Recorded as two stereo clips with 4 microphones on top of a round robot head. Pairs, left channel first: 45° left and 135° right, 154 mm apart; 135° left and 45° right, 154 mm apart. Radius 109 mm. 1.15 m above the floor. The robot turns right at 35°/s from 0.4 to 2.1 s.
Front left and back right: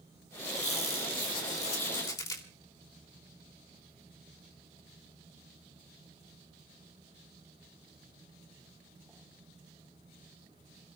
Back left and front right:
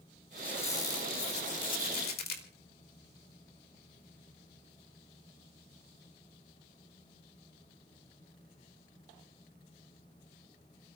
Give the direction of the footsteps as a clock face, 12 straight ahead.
I don't hear footsteps.